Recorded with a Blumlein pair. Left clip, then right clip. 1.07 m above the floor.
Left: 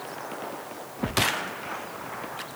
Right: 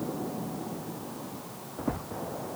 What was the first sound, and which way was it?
Only background noise.